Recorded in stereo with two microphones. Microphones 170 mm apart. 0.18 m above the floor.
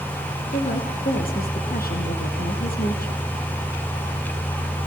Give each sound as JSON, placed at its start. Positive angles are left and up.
{"t": 0.5, "sound": "a woman speaking", "side_deg": 60, "distance_m": 3.5}